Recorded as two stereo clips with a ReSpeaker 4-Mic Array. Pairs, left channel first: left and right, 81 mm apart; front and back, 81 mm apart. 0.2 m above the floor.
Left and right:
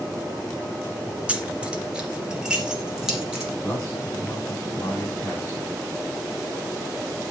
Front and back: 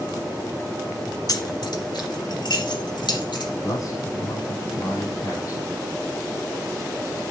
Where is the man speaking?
40° left, 7 m.